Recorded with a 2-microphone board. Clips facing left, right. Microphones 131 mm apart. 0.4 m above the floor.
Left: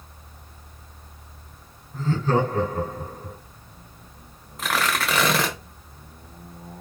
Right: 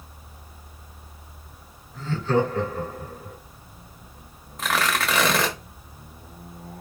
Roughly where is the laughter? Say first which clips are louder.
Even; left.